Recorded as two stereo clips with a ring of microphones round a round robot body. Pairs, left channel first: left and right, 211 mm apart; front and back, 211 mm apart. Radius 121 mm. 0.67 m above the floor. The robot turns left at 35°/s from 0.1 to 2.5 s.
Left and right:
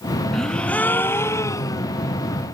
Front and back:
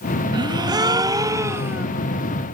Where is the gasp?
175° left; by 1.9 s 120° left.